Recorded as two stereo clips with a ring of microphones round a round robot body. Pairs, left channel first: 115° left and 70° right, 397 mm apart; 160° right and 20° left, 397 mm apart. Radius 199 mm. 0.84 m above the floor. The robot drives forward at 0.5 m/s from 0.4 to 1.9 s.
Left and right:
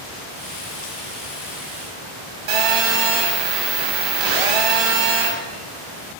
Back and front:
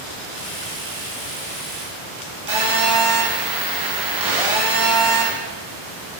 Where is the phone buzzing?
65° right, 0.9 m.